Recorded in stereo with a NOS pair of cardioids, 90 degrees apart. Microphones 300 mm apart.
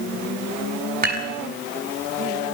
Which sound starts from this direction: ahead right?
Dishes clattering, at 1.0 s.